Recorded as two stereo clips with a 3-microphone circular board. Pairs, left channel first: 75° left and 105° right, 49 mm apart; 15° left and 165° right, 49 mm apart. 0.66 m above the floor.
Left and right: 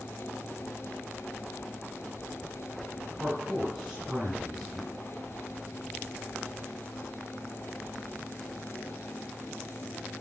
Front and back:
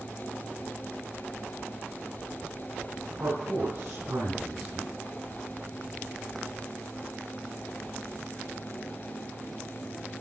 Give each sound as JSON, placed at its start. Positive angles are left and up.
{"t": 3.1, "sound": "a man speaking", "azimuth_deg": 180, "distance_m": 2.5}